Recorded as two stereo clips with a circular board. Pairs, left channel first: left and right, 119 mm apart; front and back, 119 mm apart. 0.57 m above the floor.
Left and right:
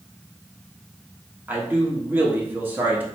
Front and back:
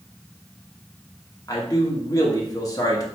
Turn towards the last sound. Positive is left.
turn(degrees=-30)